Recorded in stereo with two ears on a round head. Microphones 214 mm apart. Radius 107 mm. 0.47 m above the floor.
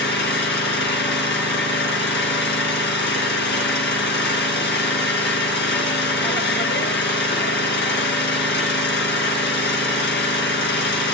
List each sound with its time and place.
0.0 s an engine running: 45° left (ahead or behind), 3 m